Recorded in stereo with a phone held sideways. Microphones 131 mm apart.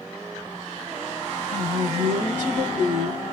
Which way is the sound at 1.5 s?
75° right (ahead or behind).